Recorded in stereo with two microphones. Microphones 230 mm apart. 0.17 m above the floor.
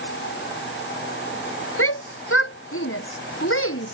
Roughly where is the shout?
Left.